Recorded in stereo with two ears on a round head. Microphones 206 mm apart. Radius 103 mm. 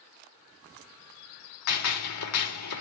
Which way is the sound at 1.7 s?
80° left.